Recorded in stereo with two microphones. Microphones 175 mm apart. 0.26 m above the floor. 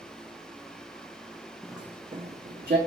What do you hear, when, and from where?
1.6 s footsteps: 5° left (ahead or behind), 0.6 m; by 2.8 s 60° right (ahead or behind), 0.7 m